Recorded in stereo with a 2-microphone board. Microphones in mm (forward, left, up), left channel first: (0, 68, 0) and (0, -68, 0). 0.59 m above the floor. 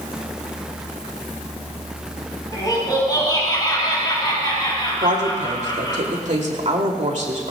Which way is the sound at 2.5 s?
30° left (ahead or behind).